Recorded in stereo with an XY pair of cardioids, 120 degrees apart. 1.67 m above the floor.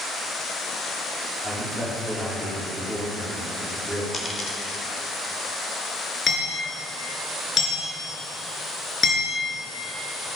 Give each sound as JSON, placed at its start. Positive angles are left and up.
{"t": 1.4, "sound": "a man speaking", "azimuth_deg": 10, "distance_m": 5.0}
{"t": 4.1, "sound": "a dropped coin", "azimuth_deg": 35, "distance_m": 3.0}
{"t": 6.3, "sound": "hammering", "azimuth_deg": 35, "distance_m": 5.5}